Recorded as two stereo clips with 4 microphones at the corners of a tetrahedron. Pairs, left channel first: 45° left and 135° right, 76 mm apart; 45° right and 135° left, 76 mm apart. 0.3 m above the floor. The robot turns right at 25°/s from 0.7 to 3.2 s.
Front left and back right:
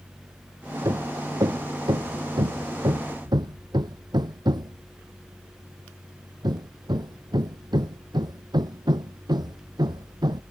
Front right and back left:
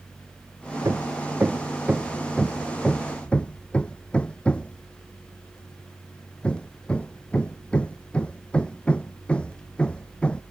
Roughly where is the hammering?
Behind.